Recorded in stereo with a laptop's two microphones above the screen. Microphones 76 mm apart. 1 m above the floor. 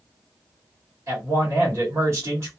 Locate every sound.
1.1 s a man speaking: 35° right (ahead or behind), 1.1 m